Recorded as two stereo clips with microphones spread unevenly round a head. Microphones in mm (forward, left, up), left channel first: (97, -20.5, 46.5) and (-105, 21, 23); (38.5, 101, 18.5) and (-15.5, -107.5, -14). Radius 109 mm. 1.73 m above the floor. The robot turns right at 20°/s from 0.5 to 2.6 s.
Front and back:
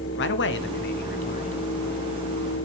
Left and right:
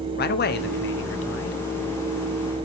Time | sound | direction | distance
0.2 | a man speaking | 25° left | 1.2 m